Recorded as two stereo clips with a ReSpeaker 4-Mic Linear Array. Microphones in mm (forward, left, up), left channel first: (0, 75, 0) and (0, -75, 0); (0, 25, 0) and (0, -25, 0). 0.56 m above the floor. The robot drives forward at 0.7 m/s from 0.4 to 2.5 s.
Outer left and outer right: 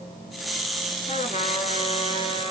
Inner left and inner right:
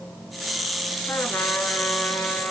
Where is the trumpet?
55° left (ahead or behind), 2.0 m; by 2.5 s 35° left (ahead or behind), 2.5 m.